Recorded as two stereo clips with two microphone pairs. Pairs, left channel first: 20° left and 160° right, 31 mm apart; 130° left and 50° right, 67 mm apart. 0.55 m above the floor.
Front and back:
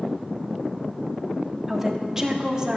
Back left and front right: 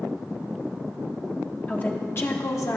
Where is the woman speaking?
130° left, 0.8 m; by 2.8 s 135° left, 1.2 m.